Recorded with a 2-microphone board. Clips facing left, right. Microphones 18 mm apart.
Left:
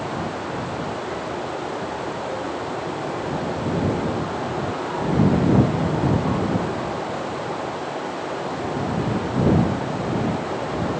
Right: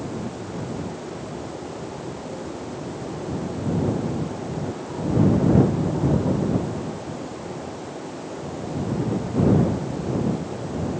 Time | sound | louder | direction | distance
0.0 | running water | left 4 dB | 45° left (ahead or behind) | ?